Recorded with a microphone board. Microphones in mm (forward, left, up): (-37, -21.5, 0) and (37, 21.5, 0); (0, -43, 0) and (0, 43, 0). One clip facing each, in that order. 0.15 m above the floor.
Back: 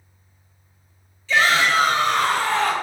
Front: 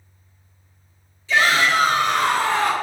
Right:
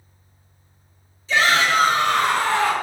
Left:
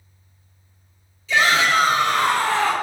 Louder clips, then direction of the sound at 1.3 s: Even, even; 40° right.